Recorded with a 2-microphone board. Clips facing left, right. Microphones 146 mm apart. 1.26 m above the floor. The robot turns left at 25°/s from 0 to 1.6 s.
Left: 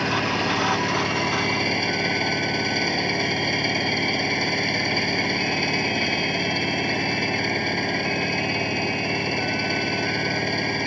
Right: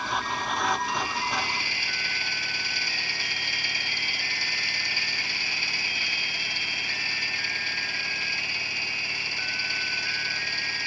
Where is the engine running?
95° left; by 10.9 s 55° left.